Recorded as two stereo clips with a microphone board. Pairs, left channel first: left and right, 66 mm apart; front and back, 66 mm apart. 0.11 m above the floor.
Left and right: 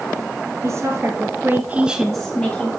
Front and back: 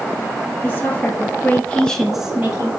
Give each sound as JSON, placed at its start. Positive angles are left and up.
{"t": 0.6, "sound": "a woman speaking", "azimuth_deg": -55, "distance_m": 2.5}